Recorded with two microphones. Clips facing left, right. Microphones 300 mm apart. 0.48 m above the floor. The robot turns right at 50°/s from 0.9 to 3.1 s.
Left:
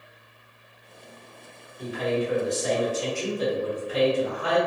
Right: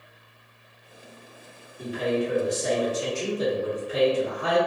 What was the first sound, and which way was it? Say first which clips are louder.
A man speaking: right 1 dB; 110° right.